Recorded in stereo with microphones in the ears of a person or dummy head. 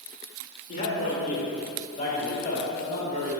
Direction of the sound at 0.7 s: 45° left (ahead or behind).